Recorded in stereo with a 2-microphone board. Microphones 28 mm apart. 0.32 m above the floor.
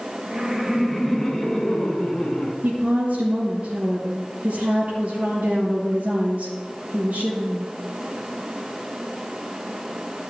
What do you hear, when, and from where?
0.3 s laughter: 30° right (ahead or behind), 1.7 m; by 2.5 s 35° left (ahead or behind), 3 m
2.6 s a woman speaking: 75° right (ahead or behind), 3.5 m